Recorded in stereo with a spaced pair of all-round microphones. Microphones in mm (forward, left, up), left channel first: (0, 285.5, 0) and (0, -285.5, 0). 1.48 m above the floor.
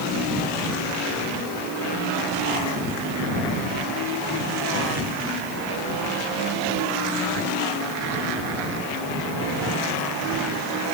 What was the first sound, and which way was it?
Only background noise.